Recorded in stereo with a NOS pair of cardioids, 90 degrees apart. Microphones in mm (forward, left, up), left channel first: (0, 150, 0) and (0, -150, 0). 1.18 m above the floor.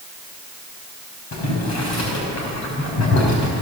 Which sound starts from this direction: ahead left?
Boiling, at 1.3 s.